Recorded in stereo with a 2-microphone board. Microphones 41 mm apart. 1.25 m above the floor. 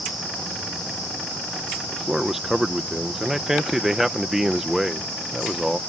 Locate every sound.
1.9 s a man speaking: 10° right (ahead or behind)